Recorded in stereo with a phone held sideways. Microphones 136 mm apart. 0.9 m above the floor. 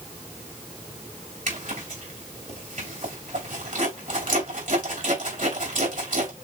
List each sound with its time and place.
1.5 s a zipper: 75° right (ahead or behind), 3 m